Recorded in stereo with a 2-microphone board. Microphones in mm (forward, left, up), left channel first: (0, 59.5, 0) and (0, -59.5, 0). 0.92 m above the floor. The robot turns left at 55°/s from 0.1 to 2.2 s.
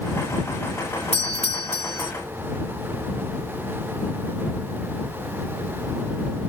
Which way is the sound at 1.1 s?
100° left.